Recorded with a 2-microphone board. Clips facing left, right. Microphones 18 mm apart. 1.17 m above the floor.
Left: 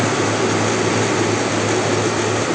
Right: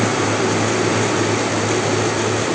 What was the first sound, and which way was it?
Only background noise.